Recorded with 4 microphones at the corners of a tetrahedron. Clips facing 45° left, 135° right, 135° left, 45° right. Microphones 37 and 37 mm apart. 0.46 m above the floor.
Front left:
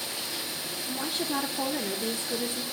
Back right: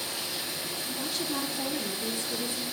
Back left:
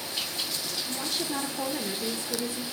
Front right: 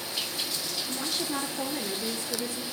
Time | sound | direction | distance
0.9 | a woman speaking | 40° left | 0.8 m